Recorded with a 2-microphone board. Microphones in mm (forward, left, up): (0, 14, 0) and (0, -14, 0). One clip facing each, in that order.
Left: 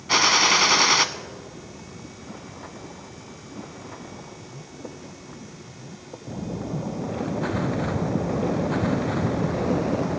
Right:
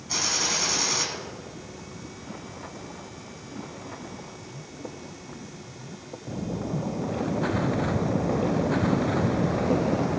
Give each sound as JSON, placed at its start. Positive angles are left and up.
{"t": 0.1, "sound": "a gunshot", "side_deg": 60, "distance_m": 0.6}